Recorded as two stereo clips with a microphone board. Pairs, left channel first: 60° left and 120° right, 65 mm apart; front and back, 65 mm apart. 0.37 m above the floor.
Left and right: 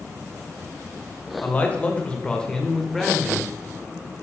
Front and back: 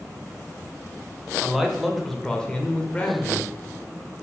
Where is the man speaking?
100° left, 1.3 m; by 3.5 s 35° right, 1.2 m.